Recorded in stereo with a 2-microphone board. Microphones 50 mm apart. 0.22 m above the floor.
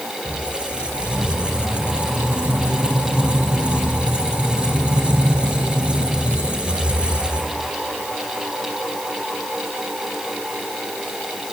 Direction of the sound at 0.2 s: 20° right (ahead or behind).